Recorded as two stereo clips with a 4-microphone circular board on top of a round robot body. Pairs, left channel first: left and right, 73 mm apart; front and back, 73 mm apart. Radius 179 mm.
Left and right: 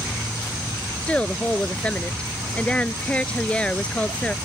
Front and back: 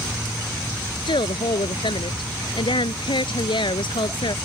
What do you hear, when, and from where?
1.1 s a woman speaking: 15° left